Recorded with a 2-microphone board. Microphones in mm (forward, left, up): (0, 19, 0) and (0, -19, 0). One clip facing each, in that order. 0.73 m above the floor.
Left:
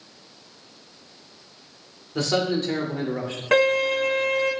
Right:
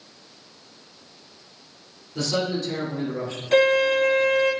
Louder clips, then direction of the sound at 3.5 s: Right 2 dB; 70° left (ahead or behind).